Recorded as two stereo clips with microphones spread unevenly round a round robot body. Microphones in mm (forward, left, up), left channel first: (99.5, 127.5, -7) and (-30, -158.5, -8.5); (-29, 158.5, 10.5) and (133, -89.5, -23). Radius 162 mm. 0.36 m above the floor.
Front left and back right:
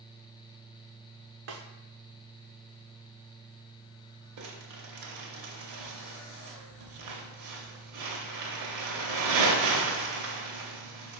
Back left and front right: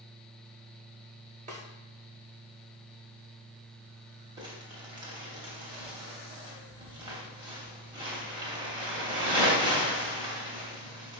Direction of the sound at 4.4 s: 125° right.